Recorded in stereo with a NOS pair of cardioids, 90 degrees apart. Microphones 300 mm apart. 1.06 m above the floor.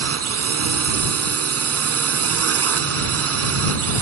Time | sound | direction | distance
0.0 | a drone | 50° right | ?